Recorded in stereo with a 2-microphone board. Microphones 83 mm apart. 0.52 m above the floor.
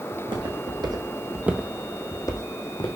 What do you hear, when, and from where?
0.1 s footsteps: 70° right (ahead or behind), 2 m; by 2.9 s 65° left (ahead or behind), 1.8 m